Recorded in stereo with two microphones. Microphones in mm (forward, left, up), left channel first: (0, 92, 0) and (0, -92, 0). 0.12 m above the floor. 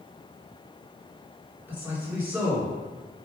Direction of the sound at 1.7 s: 10° right (ahead or behind).